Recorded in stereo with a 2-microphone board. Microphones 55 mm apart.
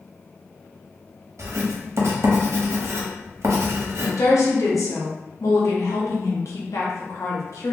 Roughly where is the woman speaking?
Left.